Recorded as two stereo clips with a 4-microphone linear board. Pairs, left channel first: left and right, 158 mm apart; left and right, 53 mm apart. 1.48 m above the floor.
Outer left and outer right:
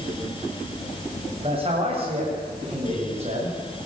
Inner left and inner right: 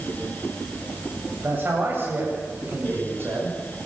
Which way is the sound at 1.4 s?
35° right (ahead or behind).